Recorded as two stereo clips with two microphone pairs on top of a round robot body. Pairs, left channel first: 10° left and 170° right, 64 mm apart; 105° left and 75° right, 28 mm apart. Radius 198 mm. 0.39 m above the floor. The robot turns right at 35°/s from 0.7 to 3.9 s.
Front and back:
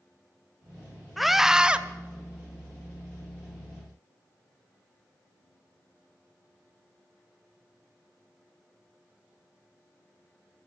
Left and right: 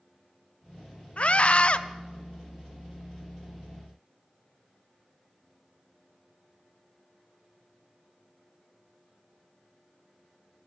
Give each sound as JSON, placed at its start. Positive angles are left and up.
{"t": 1.2, "sound": "a scream", "azimuth_deg": 100, "distance_m": 1.0}